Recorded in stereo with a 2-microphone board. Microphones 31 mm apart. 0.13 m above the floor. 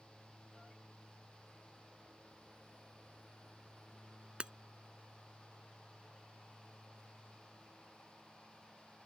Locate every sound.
4.4 s breaking glass: 35° right (ahead or behind)